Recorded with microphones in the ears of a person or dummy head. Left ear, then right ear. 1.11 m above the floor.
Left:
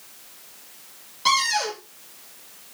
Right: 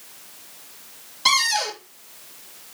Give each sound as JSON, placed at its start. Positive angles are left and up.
{"t": 1.2, "sound": "a cupboard door", "side_deg": 0, "distance_m": 2.0}